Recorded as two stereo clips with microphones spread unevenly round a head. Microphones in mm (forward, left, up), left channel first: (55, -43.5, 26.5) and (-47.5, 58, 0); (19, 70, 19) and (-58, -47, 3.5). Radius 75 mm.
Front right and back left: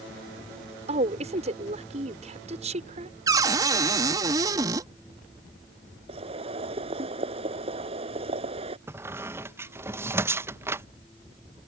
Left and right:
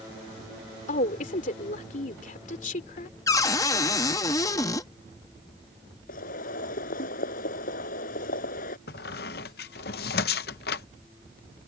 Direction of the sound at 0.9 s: 90° left.